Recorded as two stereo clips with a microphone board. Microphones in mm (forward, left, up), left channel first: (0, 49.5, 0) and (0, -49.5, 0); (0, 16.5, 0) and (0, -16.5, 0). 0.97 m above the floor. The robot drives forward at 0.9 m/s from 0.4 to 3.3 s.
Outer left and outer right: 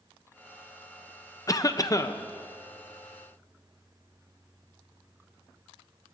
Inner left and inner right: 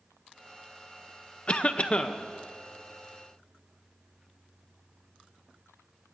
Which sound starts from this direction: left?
A cough, at 1.5 s.